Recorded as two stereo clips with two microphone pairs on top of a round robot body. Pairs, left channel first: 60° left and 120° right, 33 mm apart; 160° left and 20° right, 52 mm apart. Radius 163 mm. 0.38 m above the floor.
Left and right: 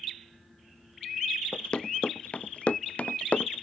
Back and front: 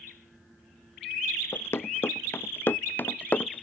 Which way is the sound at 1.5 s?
115° left.